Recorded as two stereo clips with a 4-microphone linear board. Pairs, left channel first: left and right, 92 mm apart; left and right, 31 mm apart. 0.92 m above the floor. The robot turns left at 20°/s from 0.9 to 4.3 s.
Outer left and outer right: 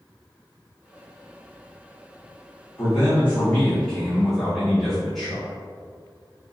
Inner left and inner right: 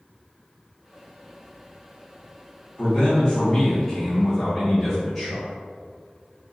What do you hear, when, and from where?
2.8 s a man speaking: 35° left, 1.4 m; by 5.5 s 5° left, 1.4 m